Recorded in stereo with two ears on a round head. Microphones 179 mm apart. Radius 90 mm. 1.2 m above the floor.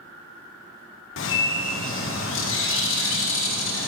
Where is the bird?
70° left (ahead or behind), 1.0 m.